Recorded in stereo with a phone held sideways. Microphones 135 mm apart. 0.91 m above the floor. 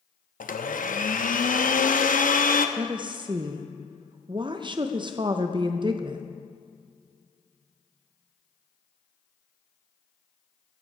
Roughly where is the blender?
Left.